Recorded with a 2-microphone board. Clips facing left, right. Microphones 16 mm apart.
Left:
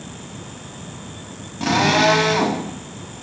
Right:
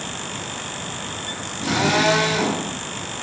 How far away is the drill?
About 5 m.